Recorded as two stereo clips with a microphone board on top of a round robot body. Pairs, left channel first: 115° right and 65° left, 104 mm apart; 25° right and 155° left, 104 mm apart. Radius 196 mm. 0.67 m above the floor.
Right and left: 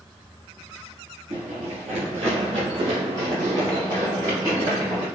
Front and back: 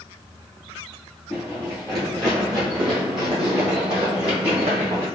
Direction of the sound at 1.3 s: 70° left.